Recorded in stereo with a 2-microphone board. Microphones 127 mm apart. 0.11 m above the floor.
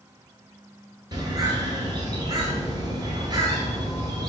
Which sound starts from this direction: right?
A bird, at 1.1 s.